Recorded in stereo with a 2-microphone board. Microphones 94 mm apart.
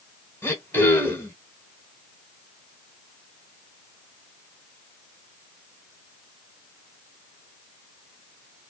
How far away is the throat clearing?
About 1.3 m.